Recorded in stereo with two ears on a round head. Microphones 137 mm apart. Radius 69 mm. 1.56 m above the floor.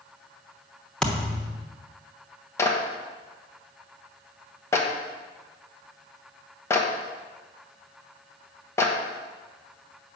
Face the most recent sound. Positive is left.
turn(degrees=20)  # may be behind; listen again after turning